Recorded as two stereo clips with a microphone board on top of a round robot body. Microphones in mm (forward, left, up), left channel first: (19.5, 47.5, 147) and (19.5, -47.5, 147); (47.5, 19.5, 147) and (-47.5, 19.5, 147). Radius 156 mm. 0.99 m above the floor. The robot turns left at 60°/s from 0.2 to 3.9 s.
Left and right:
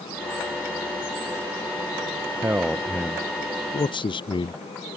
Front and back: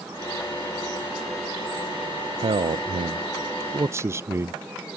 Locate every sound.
2.4 s a man speaking: 155° right; by 4.6 s 120° left